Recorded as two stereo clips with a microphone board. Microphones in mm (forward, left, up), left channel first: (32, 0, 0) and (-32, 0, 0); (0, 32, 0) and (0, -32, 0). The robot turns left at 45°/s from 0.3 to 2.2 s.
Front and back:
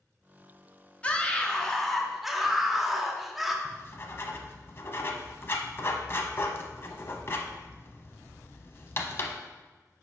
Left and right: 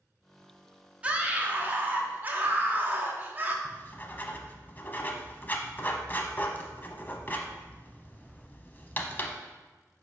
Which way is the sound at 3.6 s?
35° left.